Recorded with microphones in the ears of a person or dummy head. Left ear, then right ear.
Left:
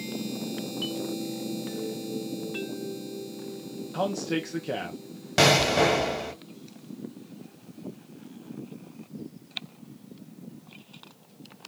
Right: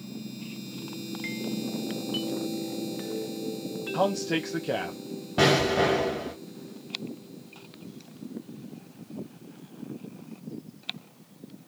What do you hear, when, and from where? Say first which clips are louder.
3.9 s a man speaking: right 2 dB; 10° right (ahead or behind), 0.6 m
5.4 s an explosion: left 2 dB; 75° left (ahead or behind), 2 m